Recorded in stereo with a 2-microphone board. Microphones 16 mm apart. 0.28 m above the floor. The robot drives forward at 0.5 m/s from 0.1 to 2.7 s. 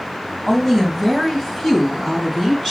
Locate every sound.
0.5 s a woman speaking: 25° left (ahead or behind), 2 m; by 2.7 s 20° left (ahead or behind), 3 m